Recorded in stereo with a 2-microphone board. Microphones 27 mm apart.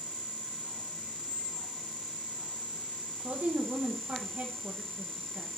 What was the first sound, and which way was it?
A squeak, 10° right (ahead or behind).